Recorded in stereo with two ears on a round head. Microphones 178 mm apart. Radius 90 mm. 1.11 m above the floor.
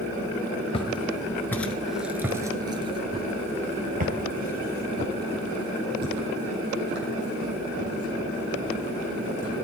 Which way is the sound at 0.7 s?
30° left (ahead or behind).